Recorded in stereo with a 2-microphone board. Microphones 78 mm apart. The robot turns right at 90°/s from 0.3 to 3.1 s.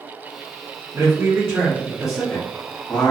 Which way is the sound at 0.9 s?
110° right.